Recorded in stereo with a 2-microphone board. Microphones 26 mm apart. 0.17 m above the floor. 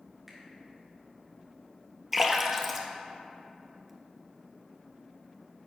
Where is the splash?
5° right (ahead or behind), 0.9 m.